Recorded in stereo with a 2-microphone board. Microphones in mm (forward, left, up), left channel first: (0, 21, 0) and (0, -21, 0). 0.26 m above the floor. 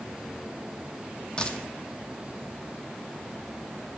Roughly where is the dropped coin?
Left.